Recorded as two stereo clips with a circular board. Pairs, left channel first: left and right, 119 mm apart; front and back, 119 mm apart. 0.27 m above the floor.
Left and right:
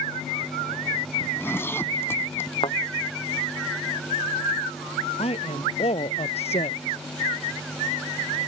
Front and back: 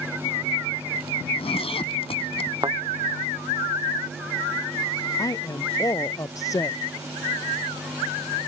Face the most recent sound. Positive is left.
turn(degrees=60)